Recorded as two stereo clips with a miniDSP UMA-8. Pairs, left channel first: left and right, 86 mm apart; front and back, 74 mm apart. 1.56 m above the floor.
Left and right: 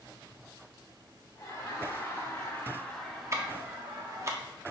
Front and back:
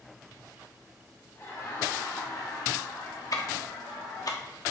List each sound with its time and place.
1.4 s laughter: 50° left, 2 m; by 4.3 s 45° right, 1.2 m
3.3 s ticking: 35° right, 0.7 m